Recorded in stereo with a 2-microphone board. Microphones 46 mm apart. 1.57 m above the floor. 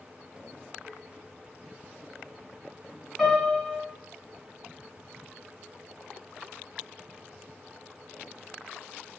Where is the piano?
5° left (ahead or behind), 1.7 m.